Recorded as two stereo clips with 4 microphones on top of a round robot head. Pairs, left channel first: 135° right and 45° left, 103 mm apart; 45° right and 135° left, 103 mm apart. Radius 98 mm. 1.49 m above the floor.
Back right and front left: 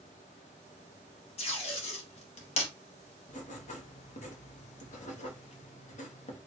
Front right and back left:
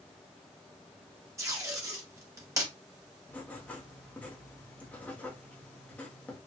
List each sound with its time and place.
1.4 s tape being pulled: 165° right, 1.6 m
3.3 s writing: 125° right, 1.4 m